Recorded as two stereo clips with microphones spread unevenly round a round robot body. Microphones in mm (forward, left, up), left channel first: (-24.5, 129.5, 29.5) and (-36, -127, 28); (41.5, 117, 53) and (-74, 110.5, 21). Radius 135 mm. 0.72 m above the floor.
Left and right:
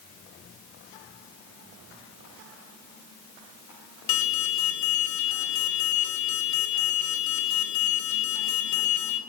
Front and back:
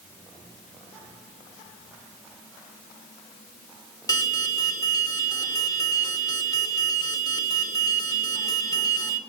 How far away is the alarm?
About 2.5 m.